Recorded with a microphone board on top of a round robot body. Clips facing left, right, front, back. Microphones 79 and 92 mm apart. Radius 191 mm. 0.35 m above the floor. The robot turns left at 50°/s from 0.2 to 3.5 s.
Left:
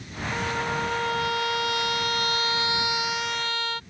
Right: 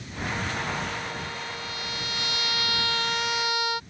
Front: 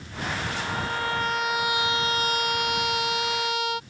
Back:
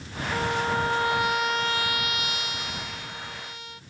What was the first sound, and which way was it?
A trumpet, 145° left.